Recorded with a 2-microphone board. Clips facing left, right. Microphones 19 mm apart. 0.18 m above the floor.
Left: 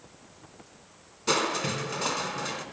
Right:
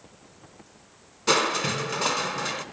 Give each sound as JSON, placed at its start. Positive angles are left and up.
{"t": 1.3, "sound": "crushing", "side_deg": -10, "distance_m": 0.9}